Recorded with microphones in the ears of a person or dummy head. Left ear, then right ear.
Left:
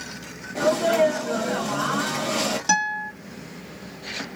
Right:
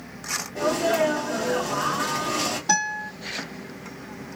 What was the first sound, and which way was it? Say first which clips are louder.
A sneeze: left 3 dB; 65° left (ahead or behind).